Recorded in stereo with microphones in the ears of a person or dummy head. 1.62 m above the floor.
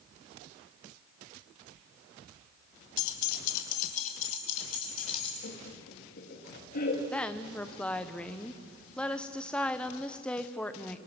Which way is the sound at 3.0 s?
70° left (ahead or behind).